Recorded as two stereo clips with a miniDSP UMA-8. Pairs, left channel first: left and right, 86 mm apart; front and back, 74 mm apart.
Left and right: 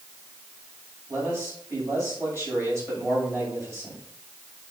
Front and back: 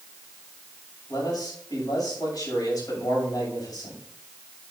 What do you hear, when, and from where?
1.1 s a man speaking: 30° right, 6 m